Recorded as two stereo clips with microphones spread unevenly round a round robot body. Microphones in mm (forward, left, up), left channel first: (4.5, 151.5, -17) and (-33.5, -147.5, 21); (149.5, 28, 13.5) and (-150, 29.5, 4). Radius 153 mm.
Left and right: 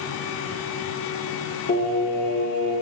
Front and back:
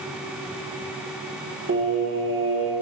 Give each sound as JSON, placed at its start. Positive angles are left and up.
{"t": 1.7, "sound": "singing", "azimuth_deg": 135, "distance_m": 1.5}